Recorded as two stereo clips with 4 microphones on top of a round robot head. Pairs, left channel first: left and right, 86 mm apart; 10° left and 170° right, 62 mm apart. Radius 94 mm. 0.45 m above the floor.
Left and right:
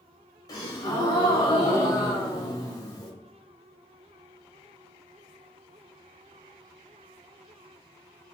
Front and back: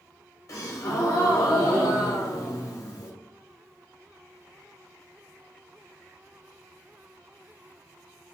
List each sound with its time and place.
0.5 s a gasp: 45° left, 0.8 m